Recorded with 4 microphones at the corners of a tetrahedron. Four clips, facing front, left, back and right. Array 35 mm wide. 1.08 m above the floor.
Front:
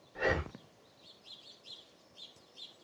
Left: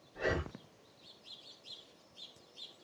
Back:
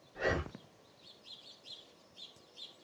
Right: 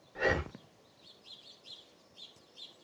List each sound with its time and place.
0.1 s breathing: 75° right, 1.5 m